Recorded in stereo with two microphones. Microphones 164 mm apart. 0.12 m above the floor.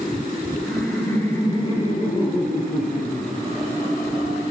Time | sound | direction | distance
0.7 | laughter | centre (ahead or behind) | 1.2 m